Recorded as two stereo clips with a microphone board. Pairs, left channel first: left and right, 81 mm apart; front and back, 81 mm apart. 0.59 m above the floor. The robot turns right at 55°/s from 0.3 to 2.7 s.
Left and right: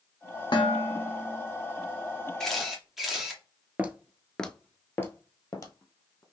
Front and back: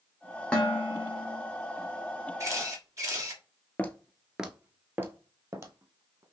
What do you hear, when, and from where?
0.5 s dishes clattering: 75° left, 1.2 m; by 1.4 s 125° left, 1.2 m
2.4 s a camera shutter: 170° left, 1.2 m; by 3.4 s 175° right, 1.2 m
3.8 s footsteps: 45° right, 0.6 m; by 6.2 s 135° left, 1.2 m